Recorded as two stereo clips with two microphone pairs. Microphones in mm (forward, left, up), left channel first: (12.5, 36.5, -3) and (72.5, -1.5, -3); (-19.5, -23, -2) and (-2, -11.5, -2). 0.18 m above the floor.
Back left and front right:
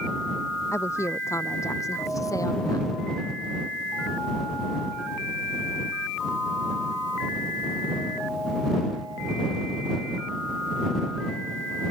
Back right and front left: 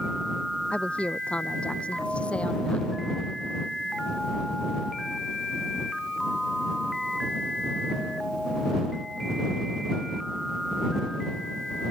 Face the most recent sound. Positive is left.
turn(degrees=180)